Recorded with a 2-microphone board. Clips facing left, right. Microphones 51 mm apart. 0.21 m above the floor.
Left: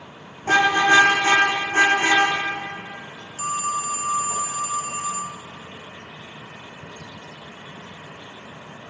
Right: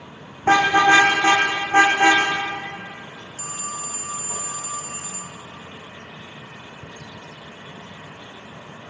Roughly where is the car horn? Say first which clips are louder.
Right 2 dB; right.